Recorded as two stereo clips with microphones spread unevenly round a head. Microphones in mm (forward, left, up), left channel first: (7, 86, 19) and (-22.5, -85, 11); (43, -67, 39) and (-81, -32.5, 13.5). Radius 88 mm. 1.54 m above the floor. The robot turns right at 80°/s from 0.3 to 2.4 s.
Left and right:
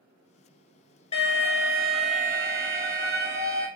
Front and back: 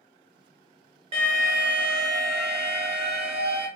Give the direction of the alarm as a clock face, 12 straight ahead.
8 o'clock.